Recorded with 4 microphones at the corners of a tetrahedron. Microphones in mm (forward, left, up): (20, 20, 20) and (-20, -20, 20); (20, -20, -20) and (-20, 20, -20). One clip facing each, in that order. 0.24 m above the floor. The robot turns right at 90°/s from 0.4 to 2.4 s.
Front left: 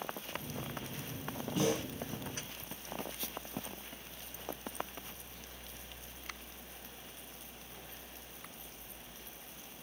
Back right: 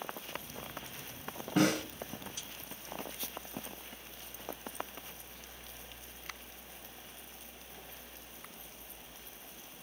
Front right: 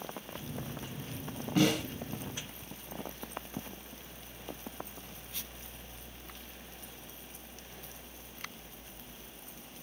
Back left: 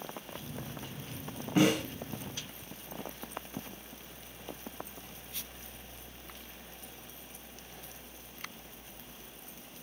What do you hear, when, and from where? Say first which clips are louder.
1.6 s a snare drum: back right 4 dB, back left 2 dB; 155° right, 3 m; by 1.8 s 130° right, 3 m